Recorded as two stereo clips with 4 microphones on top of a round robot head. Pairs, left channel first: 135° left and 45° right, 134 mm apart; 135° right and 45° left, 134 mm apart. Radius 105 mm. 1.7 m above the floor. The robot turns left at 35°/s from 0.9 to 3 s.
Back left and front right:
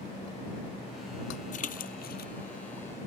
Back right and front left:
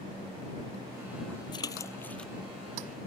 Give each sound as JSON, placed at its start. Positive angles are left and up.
{"t": 1.5, "sound": "a splash", "azimuth_deg": 165}